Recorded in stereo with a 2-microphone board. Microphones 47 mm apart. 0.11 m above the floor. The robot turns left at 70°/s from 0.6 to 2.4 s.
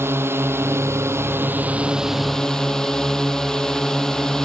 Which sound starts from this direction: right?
A drone, at 0.0 s.